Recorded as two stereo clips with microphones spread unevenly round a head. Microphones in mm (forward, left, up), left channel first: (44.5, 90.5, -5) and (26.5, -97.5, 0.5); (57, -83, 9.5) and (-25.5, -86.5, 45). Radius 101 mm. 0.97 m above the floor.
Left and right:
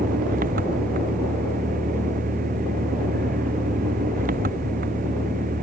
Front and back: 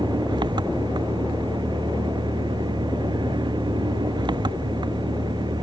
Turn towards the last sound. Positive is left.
turn(degrees=-150)